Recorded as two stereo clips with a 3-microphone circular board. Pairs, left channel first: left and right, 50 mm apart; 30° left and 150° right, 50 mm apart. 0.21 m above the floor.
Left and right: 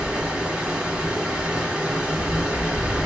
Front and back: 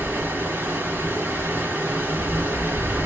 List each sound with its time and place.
0.0 s running water: 155° right, 1.6 m